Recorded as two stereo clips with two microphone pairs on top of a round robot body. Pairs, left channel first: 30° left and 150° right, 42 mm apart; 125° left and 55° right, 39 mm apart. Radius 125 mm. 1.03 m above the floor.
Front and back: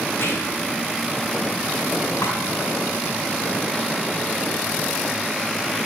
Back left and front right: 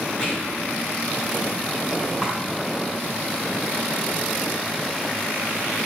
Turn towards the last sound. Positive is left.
turn(degrees=20)